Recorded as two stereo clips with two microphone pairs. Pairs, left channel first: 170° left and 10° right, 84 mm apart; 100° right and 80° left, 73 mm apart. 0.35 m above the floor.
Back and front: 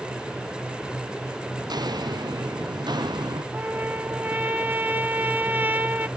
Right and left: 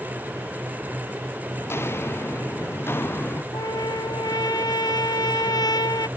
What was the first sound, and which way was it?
Footsteps, 45° right.